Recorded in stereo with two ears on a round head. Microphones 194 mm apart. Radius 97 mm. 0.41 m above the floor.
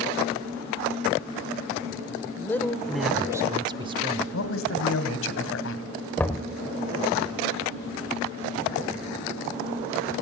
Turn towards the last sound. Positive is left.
turn(degrees=10)  # may be behind; listen again after turning